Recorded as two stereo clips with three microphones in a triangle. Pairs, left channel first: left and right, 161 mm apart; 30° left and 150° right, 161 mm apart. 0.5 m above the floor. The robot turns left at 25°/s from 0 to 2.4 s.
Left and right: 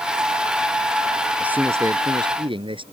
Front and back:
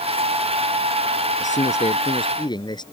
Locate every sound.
1.4 s a man speaking: 5° right; by 2.8 s 30° right